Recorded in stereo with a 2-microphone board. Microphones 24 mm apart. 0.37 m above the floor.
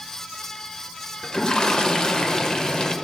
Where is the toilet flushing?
35° left (ahead or behind), 0.8 m.